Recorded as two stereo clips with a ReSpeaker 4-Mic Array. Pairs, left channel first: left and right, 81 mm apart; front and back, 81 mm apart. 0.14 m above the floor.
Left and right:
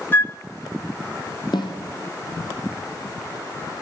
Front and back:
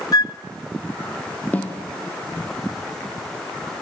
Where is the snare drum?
70° left, 3.5 m.